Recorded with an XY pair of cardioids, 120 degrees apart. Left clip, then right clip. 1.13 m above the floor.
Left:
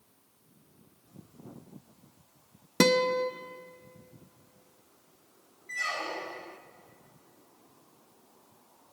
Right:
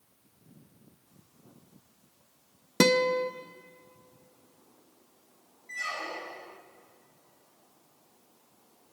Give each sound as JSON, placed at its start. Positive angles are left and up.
{"t": 2.8, "sound": "a guitar", "azimuth_deg": -5, "distance_m": 0.9}
{"t": 5.7, "sound": "a squeak", "azimuth_deg": 15, "distance_m": 1.2}